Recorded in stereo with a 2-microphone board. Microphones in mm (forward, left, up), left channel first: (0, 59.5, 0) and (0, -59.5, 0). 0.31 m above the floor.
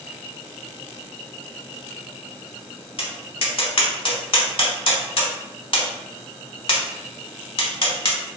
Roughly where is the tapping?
Left.